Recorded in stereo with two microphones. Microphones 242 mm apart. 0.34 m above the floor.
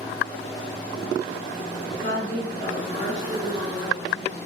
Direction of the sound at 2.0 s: 30° left (ahead or behind).